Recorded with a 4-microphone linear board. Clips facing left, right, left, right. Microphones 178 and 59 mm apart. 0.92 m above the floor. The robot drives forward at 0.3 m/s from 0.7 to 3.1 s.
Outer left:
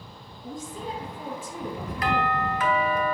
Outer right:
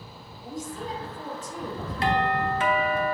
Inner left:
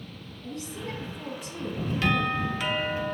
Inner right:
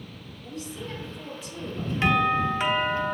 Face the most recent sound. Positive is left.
turn(degrees=-25)  # may be behind; listen again after turning